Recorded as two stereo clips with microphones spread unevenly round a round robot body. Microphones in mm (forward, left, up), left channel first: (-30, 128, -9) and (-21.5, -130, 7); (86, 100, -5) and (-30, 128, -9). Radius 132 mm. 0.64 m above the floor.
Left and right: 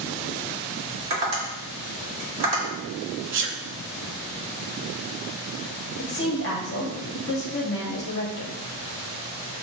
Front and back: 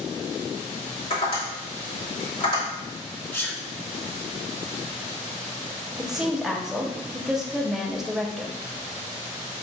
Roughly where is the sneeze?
Right.